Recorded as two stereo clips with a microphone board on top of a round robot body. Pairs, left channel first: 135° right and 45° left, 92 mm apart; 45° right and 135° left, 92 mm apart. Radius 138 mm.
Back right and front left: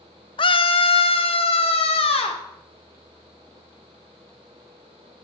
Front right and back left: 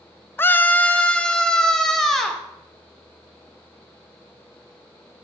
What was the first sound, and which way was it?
A scream, 110° right.